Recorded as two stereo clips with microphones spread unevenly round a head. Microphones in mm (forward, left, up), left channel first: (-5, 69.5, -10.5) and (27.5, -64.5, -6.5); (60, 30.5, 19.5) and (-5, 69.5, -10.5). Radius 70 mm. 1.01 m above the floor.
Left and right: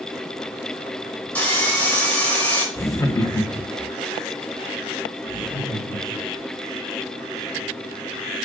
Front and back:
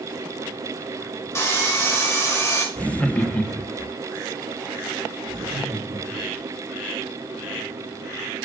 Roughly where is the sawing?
Ahead left.